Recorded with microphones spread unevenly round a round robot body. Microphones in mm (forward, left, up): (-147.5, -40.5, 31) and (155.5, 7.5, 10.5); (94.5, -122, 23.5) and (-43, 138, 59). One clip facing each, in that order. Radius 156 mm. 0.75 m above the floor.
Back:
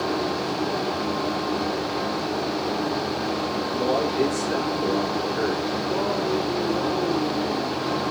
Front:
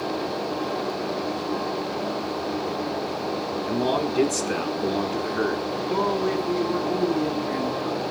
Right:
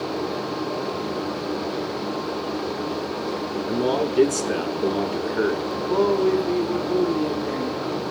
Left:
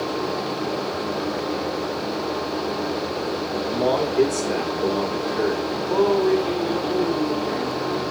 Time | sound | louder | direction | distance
3.7 | a man speaking | front 1 dB, even | 5° right | 2 m
5.9 | a man speaking | front 2 dB, left 1 dB | 5° left | 2.5 m